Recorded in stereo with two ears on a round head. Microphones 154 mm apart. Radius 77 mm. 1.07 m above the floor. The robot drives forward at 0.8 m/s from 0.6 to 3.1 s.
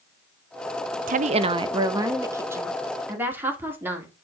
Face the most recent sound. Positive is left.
turn(degrees=-10)  # may be behind; listen again after turning